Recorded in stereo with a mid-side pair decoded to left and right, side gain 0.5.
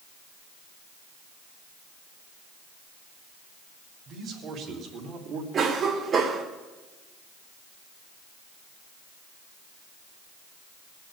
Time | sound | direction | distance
4.1 | a man speaking | 60° right | 4 m
5.5 | a cough | 55° right | 2.5 m